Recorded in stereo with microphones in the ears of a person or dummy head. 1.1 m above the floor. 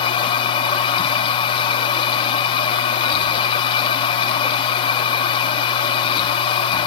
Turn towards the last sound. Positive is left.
turn(degrees=30)  # may be behind; listen again after turning